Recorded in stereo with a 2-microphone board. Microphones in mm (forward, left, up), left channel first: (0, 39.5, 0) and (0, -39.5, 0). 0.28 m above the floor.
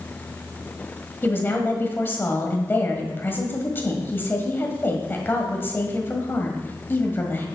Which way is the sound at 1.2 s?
25° left (ahead or behind).